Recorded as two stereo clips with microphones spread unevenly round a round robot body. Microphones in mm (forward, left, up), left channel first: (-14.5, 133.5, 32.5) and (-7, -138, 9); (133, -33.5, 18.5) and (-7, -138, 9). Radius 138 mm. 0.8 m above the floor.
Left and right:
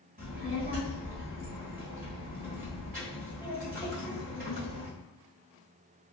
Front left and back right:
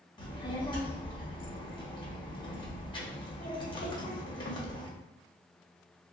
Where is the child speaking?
30° right, 1.4 m.